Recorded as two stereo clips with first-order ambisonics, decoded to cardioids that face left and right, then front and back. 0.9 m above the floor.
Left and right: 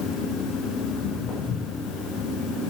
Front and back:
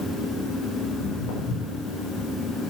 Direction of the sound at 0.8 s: 35° left.